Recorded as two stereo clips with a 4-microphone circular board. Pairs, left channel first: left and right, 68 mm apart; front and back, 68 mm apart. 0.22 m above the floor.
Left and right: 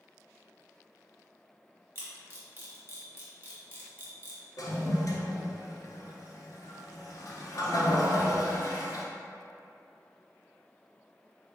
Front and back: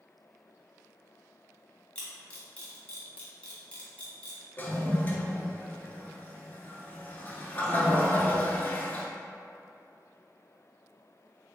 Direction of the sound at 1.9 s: 60° right.